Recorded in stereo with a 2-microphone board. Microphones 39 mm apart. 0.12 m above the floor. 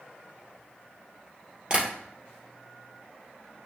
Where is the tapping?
25° right (ahead or behind), 2 m.